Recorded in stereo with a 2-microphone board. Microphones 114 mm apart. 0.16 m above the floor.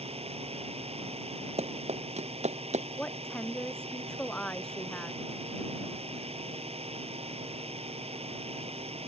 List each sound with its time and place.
0.0 s a drone: 60° right (ahead or behind)
1.6 s running footsteps: 70° right (ahead or behind); by 2.9 s 85° right
3.0 s a woman speaking: 5° left (ahead or behind)